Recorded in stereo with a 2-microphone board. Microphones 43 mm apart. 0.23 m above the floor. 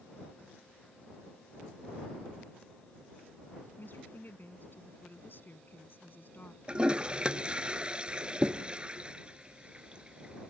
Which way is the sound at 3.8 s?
50° left (ahead or behind).